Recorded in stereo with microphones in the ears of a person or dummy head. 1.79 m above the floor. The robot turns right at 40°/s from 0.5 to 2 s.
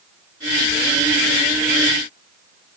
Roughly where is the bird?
I don't hear a bird.